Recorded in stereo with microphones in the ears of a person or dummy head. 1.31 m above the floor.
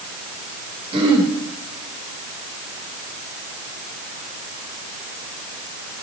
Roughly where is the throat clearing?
Right.